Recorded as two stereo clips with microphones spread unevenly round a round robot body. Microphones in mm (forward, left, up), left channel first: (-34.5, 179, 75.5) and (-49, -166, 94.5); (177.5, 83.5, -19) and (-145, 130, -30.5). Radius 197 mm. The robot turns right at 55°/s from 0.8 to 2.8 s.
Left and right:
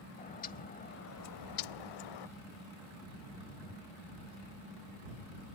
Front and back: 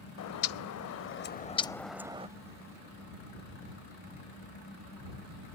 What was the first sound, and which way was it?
A bird, 20° left.